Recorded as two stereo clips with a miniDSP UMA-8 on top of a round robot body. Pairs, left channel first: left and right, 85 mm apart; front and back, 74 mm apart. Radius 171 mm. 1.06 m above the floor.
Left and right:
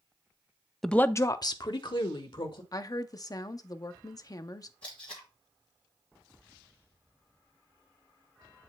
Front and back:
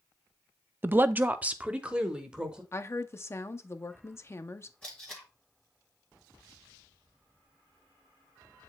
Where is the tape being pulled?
75° left, 1.0 m.